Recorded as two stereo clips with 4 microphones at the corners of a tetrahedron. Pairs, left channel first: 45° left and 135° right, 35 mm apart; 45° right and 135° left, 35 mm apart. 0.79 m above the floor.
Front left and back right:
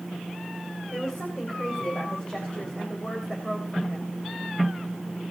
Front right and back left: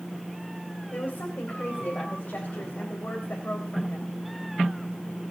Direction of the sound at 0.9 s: 20° right.